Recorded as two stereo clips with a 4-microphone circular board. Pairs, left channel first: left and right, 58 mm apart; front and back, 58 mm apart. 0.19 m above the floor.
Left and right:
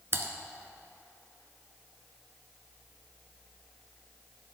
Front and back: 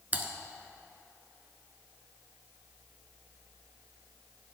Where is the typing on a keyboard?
125° right, 0.8 m.